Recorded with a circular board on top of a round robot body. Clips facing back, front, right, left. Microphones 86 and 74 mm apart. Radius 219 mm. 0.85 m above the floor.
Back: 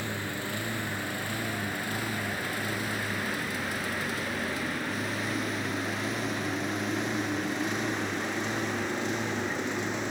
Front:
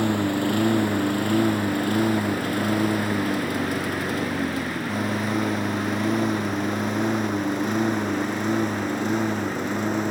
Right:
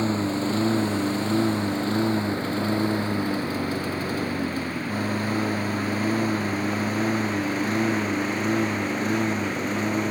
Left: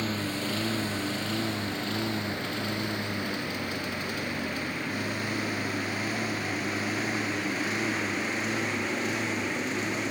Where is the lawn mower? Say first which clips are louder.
Front 12 dB, right 7 dB; 30° right; by 10.1 s 40° right.